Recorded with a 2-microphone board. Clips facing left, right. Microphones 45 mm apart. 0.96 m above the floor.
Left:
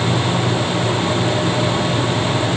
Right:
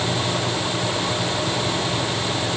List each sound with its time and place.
Only background noise.